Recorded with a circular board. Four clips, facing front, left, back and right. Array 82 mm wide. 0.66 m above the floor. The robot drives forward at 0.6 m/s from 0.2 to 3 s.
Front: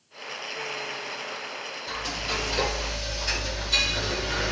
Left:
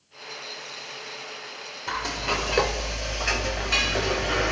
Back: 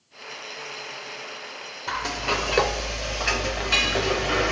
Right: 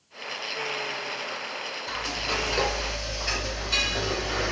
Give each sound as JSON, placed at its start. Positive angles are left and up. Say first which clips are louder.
{"t": 1.9, "sound": "frying", "louder": "left 4 dB, back 7 dB", "azimuth_deg": 140, "distance_m": 1.5}